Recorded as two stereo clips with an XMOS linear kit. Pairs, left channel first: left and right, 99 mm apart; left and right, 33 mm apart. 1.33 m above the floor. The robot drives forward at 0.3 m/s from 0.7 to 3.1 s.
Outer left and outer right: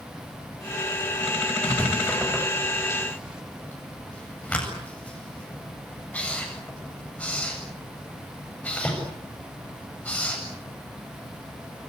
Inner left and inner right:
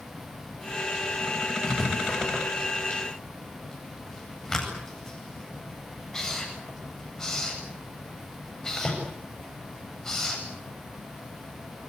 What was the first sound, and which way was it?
Writing, 15° left (ahead or behind).